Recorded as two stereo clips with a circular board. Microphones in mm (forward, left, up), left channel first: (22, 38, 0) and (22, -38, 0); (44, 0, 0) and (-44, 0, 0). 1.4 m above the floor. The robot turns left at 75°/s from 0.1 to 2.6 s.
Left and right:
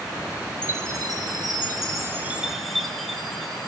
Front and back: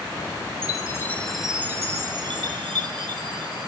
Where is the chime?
35° right, 1.2 m; by 3.7 s straight behind, 1.2 m.